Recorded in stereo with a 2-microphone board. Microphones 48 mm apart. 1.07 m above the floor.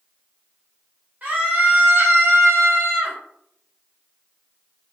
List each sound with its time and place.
1.2 s a scream: 35° right (ahead or behind), 1.4 m; by 3.2 s 45° right (ahead or behind), 0.8 m